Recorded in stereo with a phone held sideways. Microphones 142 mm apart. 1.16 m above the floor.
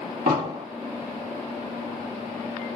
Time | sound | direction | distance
0.3 | an explosion | 65° right (ahead or behind) | 1.3 m